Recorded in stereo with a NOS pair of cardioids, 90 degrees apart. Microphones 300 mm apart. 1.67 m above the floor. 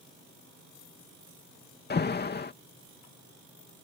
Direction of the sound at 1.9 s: 35° left.